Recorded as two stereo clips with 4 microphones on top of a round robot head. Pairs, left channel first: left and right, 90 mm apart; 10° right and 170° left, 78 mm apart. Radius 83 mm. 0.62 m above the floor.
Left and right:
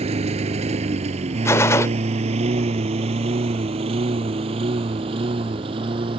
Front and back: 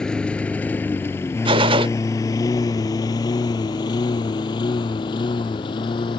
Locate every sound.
0.0 s a lawn mower: 95° right; by 6.2 s 50° right
1.4 s a gunshot: 155° left